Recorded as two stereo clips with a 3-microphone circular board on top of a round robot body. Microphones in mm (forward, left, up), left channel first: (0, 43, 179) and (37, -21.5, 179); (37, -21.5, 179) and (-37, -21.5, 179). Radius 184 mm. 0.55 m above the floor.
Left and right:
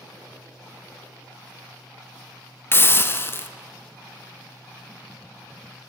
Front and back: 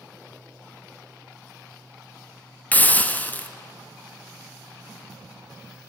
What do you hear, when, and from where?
2.7 s a hiss: 65° left, 0.6 m